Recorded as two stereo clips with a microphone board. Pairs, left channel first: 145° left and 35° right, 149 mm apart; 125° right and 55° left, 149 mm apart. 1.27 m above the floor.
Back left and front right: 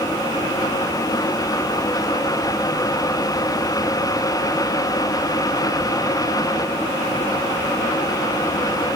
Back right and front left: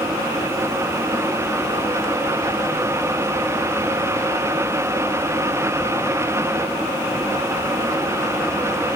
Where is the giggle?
No giggle in this recording.